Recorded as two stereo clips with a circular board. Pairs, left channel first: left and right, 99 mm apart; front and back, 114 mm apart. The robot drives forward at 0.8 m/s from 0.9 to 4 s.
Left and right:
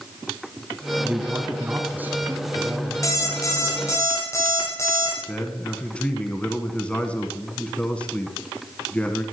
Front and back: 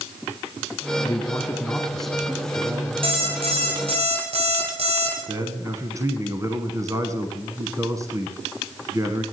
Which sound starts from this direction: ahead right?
A man speaking, at 1.0 s.